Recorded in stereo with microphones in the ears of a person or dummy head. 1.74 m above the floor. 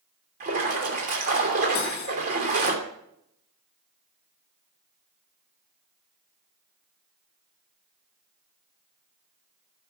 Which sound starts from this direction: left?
Cutlery clinking, at 1.8 s.